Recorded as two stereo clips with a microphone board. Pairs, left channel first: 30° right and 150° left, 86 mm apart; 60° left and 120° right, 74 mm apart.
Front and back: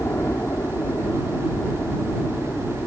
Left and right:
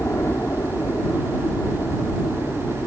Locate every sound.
0.0 s a helicopter: 20° left